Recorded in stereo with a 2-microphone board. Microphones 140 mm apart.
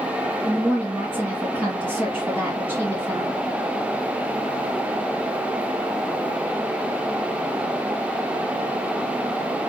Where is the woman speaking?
15° right (ahead or behind), 2 m.